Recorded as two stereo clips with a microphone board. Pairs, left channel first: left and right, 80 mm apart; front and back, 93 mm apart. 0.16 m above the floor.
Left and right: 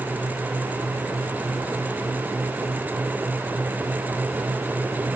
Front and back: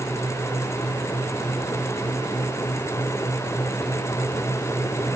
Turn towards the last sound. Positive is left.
No sound to turn to.